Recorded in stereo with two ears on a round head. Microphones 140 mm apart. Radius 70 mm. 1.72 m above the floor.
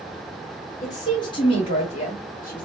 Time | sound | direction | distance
0.8 | a woman speaking | 25° left (ahead or behind) | 1.6 m